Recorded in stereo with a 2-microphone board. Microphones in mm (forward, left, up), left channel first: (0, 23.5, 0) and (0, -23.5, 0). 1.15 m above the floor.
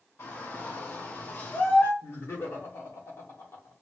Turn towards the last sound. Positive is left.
turn(degrees=70)  # may be behind; listen again after turning